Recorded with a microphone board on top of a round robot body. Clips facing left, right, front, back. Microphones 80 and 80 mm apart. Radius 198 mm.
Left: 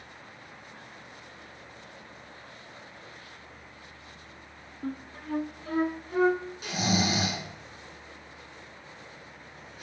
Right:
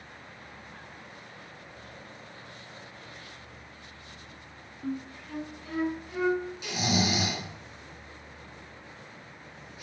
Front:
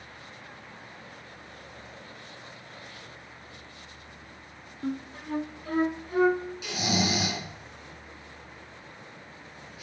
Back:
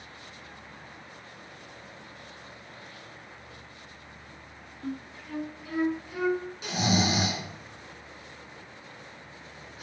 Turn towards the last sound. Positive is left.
turn(degrees=135)